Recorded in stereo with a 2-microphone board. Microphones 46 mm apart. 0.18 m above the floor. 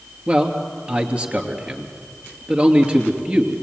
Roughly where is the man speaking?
Right.